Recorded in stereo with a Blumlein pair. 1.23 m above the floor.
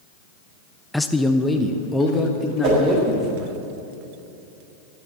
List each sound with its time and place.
0.9 s a man speaking: 5° left, 0.5 m; by 3.6 s 15° left, 2.5 m
2.6 s a whoosh: 40° right, 5 m